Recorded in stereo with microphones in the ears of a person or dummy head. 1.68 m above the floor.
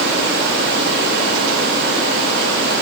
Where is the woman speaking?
I don't hear a woman speaking.